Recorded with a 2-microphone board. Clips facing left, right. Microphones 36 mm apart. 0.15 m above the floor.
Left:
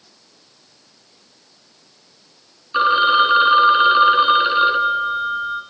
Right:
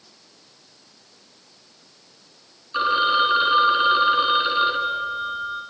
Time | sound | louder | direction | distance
2.7 | a phone ringing | left 5 dB | 20° left (ahead or behind) | 1.3 m